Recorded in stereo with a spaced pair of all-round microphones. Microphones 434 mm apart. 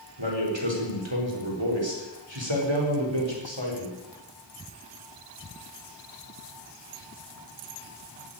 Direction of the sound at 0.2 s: 85° right.